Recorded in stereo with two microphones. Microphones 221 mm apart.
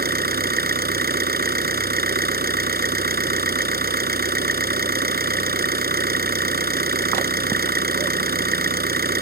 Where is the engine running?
45° right (ahead or behind).